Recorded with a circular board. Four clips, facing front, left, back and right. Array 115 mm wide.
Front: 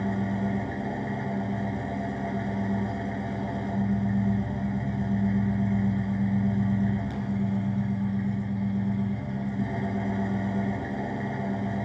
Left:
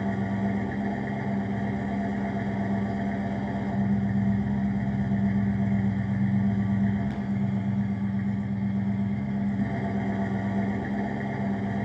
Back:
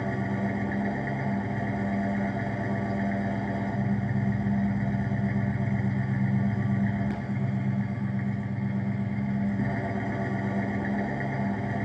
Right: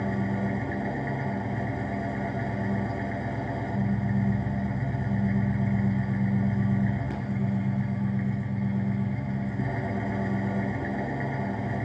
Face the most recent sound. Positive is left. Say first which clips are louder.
# left 1 dB, front 1 dB
turn(degrees=-155)